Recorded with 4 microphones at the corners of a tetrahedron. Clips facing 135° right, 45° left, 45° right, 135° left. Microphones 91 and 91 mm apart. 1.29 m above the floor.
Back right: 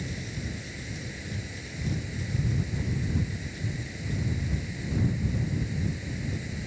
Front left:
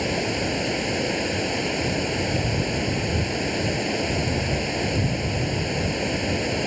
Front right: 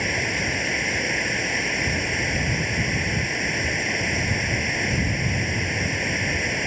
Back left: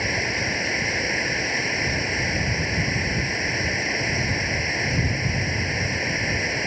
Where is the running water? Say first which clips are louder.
Front left 13 dB, even; 50° left.